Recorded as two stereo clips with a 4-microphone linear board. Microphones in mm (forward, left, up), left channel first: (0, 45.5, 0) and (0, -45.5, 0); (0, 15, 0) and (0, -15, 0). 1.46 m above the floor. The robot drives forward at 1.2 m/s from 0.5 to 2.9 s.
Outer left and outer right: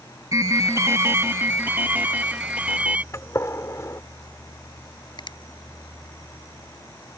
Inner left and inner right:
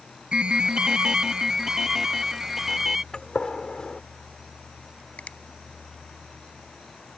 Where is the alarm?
35° right (ahead or behind); by 3.0 s 15° right (ahead or behind).